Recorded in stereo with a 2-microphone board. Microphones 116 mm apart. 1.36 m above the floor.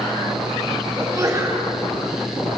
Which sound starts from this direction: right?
A sneeze, at 1.0 s.